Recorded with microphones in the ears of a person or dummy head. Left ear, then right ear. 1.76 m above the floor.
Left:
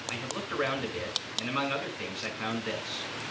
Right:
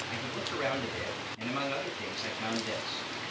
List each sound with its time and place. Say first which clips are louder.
0.1 s a man speaking: even; 15° left (ahead or behind), 4 m